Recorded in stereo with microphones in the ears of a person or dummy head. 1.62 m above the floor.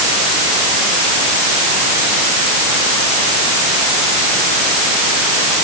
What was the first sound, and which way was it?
Only background noise.